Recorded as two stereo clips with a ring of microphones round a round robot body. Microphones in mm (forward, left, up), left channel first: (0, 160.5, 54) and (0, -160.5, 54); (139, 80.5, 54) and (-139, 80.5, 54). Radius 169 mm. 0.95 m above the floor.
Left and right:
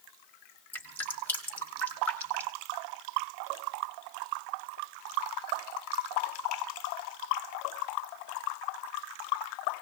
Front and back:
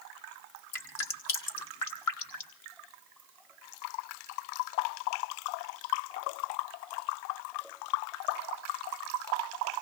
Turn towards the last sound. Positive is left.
turn(degrees=5)